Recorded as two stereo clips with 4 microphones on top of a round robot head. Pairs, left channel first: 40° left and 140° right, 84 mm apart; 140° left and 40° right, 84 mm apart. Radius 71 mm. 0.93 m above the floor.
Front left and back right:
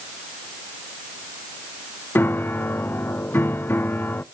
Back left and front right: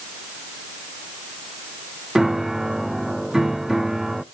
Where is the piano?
40° left, 0.6 m.